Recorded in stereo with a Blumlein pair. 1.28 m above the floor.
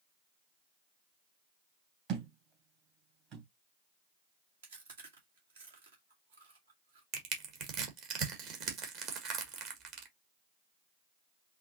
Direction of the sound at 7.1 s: 40° right.